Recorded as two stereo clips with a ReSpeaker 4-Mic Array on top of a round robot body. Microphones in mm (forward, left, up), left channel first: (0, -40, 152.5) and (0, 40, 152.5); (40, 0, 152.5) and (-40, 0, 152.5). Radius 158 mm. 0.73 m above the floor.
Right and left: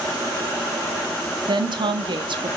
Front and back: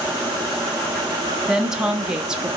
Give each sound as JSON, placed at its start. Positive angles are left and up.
{"t": 1.5, "sound": "a woman speaking", "azimuth_deg": 100, "distance_m": 1.5}